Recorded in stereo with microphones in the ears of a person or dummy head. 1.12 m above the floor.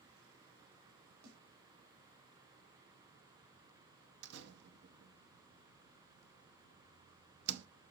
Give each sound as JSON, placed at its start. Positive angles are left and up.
{"t": 1.2, "sound": "a snare drum", "side_deg": -60, "distance_m": 5.0}
{"t": 4.2, "sound": "a door slam", "side_deg": -70, "distance_m": 1.0}